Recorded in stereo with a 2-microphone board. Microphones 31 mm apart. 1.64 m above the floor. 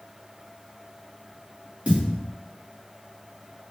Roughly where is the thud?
Right.